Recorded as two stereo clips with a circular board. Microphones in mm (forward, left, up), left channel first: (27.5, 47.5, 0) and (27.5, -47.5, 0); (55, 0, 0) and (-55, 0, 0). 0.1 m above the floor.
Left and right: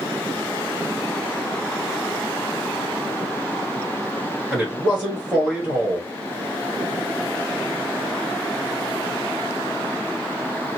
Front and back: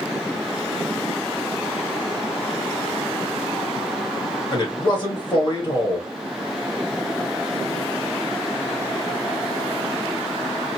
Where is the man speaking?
15° right, 1.6 m.